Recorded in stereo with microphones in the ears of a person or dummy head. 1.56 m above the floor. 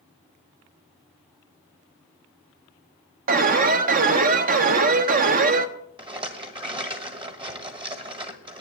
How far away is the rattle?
About 1.3 m.